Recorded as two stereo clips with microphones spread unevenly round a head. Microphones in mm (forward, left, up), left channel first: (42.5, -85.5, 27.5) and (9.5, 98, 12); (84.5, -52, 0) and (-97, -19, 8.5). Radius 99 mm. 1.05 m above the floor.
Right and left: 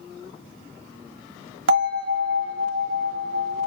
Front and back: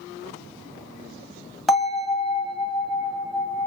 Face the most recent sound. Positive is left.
turn(degrees=80)